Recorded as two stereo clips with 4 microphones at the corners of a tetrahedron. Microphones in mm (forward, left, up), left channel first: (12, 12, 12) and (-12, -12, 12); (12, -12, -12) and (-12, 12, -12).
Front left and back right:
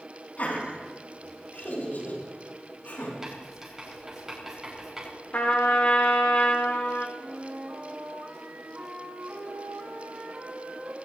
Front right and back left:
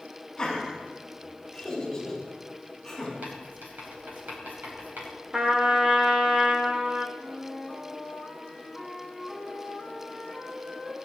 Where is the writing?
145° left, 4 m.